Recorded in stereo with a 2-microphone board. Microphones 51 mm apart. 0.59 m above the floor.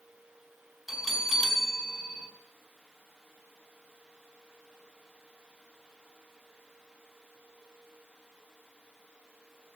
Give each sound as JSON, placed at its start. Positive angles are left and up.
{"t": 0.9, "sound": "a bell", "side_deg": -5, "distance_m": 4.0}